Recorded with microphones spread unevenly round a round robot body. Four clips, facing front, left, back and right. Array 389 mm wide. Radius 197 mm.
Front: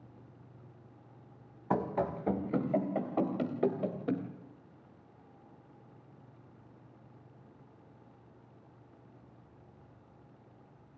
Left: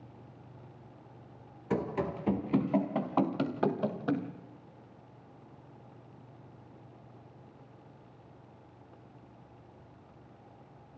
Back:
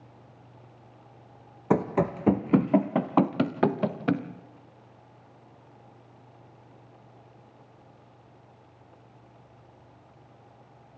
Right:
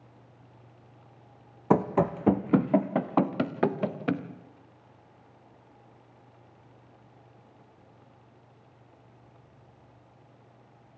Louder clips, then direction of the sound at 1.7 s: Right 8 dB, back 7 dB; 130° right.